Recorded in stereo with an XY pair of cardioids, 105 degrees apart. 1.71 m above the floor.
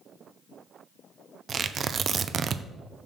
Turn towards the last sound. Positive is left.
turn(degrees=-45)